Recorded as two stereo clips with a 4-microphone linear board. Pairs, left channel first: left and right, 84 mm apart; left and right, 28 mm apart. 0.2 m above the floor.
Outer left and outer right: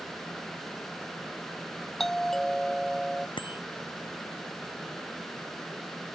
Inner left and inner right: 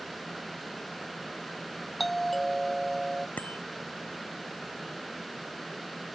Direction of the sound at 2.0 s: 5° left (ahead or behind).